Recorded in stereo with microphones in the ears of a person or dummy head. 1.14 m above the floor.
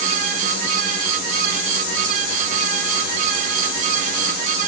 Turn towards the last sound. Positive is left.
No sound to turn to.